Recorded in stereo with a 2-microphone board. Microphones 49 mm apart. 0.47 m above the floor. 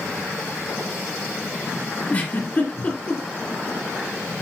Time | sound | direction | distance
2.1 | a giggle | 30° left (ahead or behind) | 2 m